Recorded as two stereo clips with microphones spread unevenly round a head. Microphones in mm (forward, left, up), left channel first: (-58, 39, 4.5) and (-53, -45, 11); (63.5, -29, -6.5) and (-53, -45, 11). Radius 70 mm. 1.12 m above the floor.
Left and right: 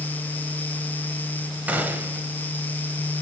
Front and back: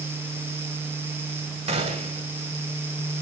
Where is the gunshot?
155° right, 1.7 m.